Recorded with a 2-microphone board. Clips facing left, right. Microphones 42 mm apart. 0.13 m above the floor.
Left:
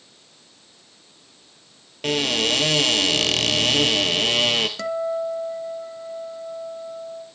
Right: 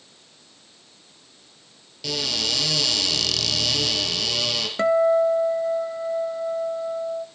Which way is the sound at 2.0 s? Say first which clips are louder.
Left 6 dB; 40° left (ahead or behind).